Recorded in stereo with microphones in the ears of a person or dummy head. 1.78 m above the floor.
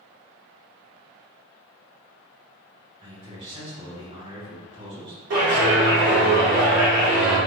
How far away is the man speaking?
About 1.5 m.